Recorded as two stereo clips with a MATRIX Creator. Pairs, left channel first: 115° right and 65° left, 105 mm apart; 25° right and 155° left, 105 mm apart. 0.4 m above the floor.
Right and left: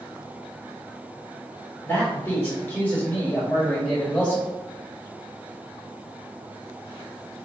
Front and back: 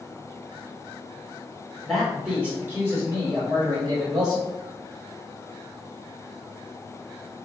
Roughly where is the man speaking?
Right.